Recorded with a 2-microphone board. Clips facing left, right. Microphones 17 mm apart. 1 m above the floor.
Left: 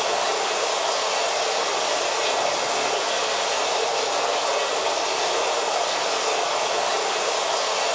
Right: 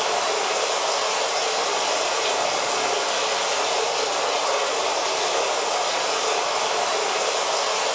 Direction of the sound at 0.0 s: 15° right (ahead or behind).